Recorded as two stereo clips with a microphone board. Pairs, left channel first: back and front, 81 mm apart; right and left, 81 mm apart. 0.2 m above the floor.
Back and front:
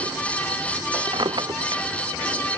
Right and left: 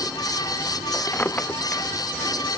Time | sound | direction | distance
1.1 | a drawer | 25° right | ?